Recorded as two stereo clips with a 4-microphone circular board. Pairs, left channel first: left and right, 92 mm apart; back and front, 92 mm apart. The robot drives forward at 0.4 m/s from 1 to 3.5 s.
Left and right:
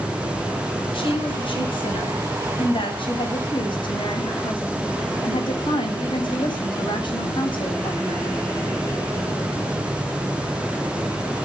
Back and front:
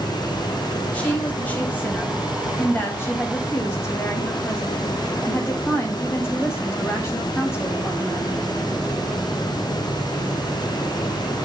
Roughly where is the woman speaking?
Left.